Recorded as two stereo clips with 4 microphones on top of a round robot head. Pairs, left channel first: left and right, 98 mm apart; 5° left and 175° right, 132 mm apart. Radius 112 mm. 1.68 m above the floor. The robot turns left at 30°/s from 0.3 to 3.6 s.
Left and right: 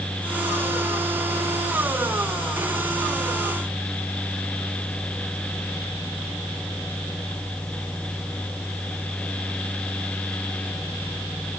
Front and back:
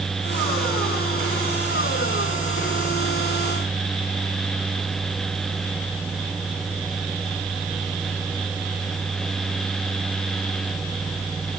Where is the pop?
No pop in this recording.